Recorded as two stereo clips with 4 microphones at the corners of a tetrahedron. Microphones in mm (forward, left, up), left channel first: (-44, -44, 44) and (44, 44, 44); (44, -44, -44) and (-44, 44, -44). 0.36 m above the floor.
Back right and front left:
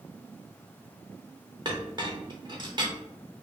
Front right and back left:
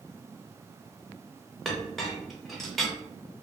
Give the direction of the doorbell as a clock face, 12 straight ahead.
No doorbell in this recording.